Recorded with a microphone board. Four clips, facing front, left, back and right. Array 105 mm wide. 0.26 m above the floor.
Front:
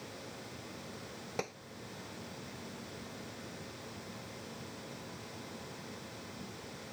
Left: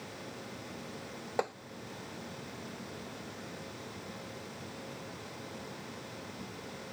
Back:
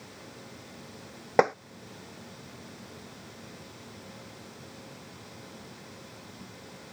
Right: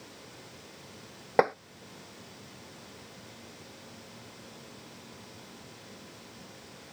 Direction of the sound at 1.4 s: 145° right.